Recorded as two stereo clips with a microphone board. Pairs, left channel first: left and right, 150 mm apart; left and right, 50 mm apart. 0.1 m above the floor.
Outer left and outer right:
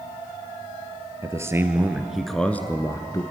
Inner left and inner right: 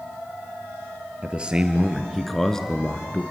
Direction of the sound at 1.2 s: 20° right (ahead or behind).